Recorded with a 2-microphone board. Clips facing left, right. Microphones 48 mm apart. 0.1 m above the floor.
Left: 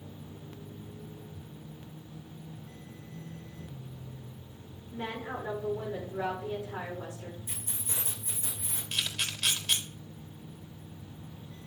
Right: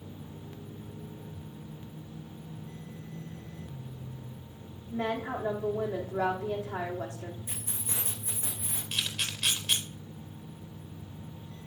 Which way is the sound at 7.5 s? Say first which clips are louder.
Right 2 dB; 40° right (ahead or behind).